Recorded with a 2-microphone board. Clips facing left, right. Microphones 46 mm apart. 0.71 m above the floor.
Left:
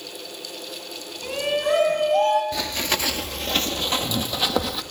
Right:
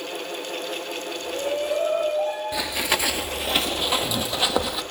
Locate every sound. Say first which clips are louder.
1.2 s a shout: left 3 dB; 80° left, 5 m; by 2.4 s 85° left, 5.5 m
2.5 s running footsteps: right 1 dB; 15° right (ahead or behind), 0.7 m; by 4.8 s 5° right (ahead or behind), 1.7 m